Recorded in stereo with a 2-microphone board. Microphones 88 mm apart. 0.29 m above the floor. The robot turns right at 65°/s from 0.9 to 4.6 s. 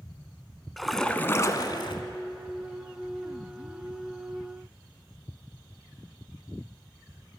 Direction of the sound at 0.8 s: Straight ahead.